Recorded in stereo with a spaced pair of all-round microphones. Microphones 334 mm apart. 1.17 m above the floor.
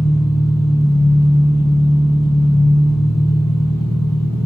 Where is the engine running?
10° left (ahead or behind), 4.5 m.